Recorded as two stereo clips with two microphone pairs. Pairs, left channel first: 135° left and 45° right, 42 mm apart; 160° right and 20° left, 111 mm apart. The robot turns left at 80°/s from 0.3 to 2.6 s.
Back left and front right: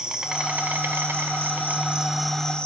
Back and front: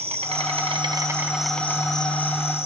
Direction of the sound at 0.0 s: 20° left.